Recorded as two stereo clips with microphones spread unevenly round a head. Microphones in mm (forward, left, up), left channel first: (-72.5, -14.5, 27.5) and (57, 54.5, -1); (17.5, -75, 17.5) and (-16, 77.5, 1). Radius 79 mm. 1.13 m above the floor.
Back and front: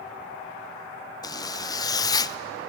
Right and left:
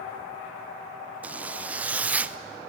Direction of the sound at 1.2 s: 150° left.